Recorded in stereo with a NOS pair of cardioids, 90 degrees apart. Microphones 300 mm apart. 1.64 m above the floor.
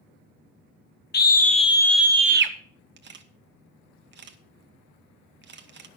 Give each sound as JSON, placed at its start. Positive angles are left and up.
{"t": 1.1, "sound": "a scream", "azimuth_deg": 35, "distance_m": 1.7}
{"t": 3.0, "sound": "a camera shutter", "azimuth_deg": -35, "distance_m": 1.2}